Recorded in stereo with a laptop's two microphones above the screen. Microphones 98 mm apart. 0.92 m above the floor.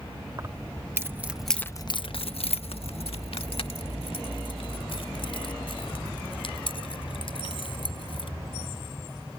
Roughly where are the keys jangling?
Right.